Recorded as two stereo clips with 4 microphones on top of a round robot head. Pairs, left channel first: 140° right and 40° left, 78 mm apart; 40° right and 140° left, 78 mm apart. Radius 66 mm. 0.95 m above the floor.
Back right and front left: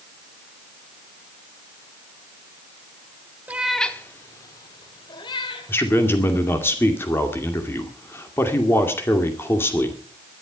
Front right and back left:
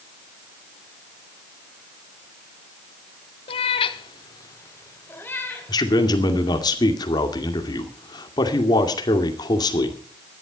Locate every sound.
3.5 s a cat meowing: 30° right, 1.0 m; by 6.7 s 120° right, 4.5 m
5.7 s a man speaking: 75° right, 2.5 m